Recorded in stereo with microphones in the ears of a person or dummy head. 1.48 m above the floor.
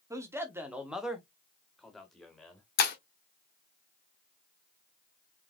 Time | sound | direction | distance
0.1 | a man speaking | 20° right (ahead or behind) | 0.8 m
2.8 | breaking glass | 50° left (ahead or behind) | 1.7 m